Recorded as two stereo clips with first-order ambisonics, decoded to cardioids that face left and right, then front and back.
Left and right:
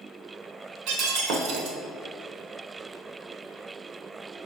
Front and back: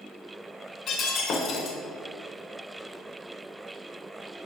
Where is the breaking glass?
55° right, 1.1 m.